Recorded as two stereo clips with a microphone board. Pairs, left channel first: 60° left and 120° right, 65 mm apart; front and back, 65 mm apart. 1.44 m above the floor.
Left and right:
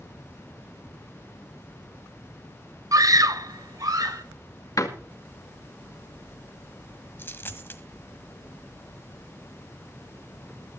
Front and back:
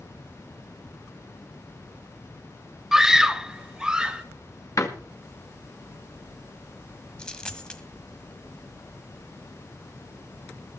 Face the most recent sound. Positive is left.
turn(degrees=65)